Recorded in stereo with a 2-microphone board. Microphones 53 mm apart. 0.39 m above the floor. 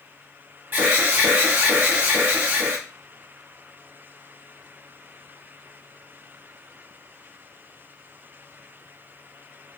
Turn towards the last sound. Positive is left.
turn(degrees=-35)  # may be behind; listen again after turning